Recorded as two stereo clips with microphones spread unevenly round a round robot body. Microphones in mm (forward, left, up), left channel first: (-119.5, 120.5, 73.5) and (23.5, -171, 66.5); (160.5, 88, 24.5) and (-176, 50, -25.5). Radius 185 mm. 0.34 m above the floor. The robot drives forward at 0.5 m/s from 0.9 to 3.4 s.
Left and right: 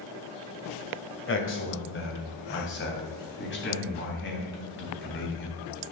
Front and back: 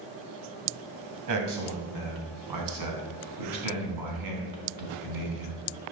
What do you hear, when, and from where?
1.3 s a man speaking: 165° left, 2.5 m; by 5.6 s 170° left, 3.5 m